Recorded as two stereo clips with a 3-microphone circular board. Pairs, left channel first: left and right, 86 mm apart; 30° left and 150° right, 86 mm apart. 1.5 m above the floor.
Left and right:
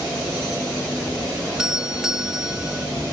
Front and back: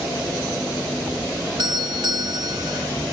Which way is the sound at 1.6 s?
170° right.